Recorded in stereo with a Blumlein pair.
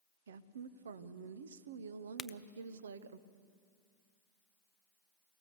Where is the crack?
15° left, 0.6 m.